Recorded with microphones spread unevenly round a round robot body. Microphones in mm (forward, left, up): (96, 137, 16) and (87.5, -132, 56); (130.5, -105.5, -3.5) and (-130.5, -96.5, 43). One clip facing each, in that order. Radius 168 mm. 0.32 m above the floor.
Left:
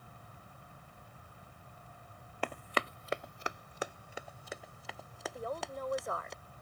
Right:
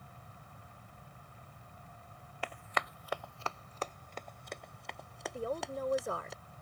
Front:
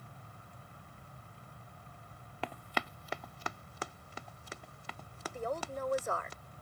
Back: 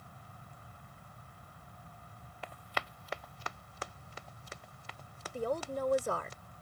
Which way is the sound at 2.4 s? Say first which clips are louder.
Left 5 dB, front 4 dB; 45° left.